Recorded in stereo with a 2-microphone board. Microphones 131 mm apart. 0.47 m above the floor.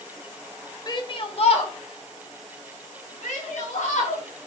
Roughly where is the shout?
Left.